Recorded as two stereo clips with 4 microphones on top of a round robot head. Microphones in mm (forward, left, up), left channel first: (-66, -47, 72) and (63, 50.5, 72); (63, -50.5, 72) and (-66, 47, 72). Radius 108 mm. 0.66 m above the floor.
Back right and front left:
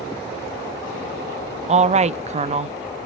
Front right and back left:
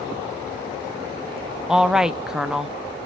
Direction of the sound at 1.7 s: 60° left.